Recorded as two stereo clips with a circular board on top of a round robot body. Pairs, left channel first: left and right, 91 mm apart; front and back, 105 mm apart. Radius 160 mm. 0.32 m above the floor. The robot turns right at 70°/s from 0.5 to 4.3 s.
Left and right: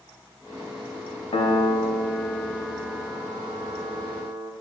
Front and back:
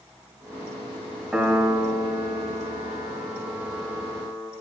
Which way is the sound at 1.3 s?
95° left.